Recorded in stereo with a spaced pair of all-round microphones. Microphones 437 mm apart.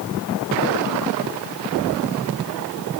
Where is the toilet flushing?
No toilet flushing in this recording.